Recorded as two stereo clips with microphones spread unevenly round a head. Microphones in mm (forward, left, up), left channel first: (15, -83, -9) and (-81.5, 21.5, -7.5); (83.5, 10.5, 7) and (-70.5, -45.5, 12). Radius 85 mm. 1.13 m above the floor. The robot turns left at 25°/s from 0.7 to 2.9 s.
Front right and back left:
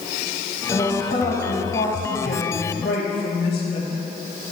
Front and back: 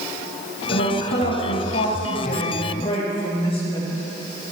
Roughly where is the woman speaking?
Ahead.